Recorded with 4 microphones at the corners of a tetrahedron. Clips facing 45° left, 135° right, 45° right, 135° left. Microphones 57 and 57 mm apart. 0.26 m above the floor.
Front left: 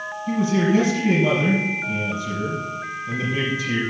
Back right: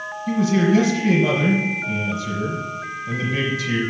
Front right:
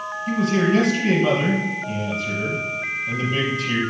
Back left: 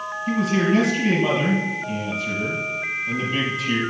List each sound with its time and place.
0.3 s a man speaking: 140° right, 4 m